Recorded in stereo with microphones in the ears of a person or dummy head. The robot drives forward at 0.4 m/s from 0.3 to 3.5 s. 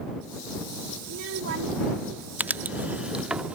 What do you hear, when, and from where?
1.0 s a child speaking: 65° right (ahead or behind)
2.4 s writing: 5° right (ahead or behind)